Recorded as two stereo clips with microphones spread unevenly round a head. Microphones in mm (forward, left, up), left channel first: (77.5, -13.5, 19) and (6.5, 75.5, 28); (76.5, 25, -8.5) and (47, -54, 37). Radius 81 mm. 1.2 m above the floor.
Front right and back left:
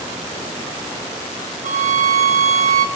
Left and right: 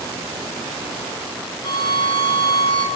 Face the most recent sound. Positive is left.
turn(degrees=115)